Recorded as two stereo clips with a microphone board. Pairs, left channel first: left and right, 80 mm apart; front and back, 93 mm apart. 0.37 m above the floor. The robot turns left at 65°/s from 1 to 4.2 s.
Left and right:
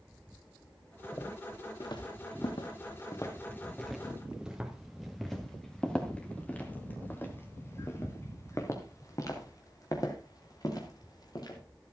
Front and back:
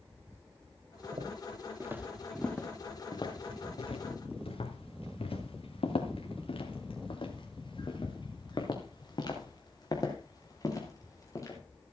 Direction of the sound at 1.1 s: 155° left.